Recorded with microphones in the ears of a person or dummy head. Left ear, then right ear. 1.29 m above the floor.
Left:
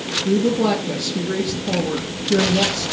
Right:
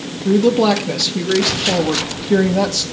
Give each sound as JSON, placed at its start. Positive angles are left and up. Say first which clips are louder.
{"t": 0.2, "sound": "a woman speaking", "louder": "right 7 dB", "side_deg": -40, "distance_m": 1.9}